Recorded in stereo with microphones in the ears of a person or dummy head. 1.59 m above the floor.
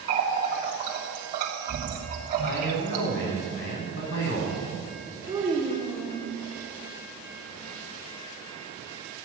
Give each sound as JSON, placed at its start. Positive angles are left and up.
{"t": 0.1, "sound": "a running tap", "side_deg": -50, "distance_m": 2.5}
{"t": 2.4, "sound": "a man speaking", "side_deg": 75, "distance_m": 4.0}
{"t": 5.3, "sound": "a child speaking", "side_deg": -20, "distance_m": 2.0}